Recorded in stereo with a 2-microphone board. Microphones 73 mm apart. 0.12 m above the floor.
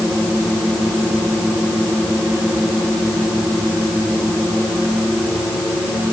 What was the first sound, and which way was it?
Only background noise.